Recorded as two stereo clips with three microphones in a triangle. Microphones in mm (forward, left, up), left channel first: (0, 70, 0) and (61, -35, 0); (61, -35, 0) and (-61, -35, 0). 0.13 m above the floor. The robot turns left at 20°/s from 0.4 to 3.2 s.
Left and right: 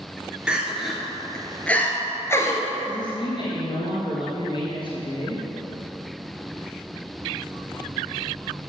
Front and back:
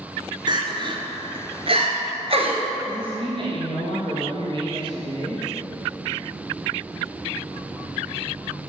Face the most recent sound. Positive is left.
turn(degrees=155)